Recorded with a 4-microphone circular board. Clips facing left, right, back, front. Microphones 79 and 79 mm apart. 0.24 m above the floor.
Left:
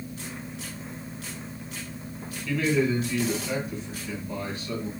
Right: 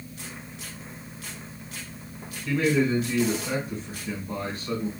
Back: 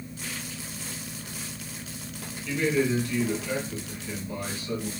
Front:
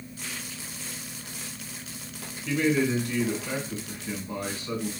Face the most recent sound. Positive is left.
turn(degrees=-50)